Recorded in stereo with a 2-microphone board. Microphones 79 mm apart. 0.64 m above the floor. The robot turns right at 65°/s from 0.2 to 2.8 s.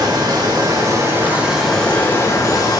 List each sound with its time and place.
0.0 s running water: 95° right, 5.5 m; by 2.8 s 75° left, 5.5 m